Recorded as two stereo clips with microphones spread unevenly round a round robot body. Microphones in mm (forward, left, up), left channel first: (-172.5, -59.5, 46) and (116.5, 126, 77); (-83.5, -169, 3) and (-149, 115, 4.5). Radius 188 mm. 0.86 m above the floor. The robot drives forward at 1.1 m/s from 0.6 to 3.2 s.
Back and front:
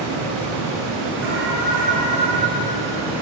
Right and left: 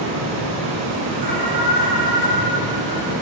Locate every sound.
0.0 s running water: 80° left, 4 m; by 3.2 s 120° left, 4.5 m
1.2 s an alarm: 85° left, 5 m; by 2.3 s 100° left, 5 m